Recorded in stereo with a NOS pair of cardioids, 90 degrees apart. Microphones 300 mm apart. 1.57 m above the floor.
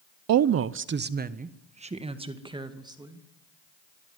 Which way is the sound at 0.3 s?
65° right.